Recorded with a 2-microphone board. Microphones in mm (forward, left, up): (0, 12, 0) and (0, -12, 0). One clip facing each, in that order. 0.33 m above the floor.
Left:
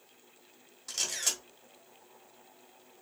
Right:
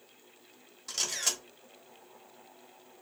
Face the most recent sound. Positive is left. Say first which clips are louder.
# right 1 dB
turn(degrees=-10)  # may be behind; listen again after turning